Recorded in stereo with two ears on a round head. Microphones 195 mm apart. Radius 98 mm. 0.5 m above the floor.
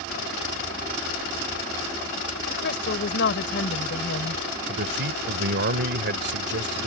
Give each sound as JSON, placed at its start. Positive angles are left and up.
{"t": 2.6, "sound": "a woman speaking", "side_deg": 55}
{"t": 4.7, "sound": "a man speaking", "side_deg": -55}